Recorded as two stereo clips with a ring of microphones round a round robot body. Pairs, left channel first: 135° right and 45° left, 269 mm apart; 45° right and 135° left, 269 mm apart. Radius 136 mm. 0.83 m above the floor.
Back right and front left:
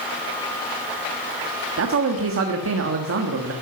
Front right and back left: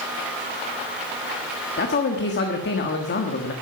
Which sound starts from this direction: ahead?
A man speaking, at 1.8 s.